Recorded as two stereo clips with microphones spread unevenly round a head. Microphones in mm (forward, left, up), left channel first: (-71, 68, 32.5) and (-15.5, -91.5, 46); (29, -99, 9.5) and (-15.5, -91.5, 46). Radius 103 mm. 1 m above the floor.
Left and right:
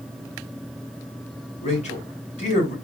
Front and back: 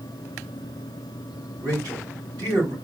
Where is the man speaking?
155° left, 2.5 m.